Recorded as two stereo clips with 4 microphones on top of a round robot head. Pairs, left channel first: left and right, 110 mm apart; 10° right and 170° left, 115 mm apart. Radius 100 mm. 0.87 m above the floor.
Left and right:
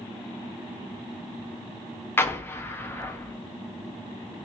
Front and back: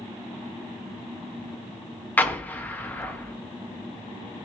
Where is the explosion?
50° left, 0.9 m.